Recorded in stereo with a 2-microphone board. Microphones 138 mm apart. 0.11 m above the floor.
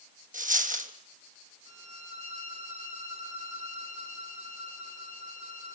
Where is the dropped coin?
75° right (ahead or behind), 1.9 m.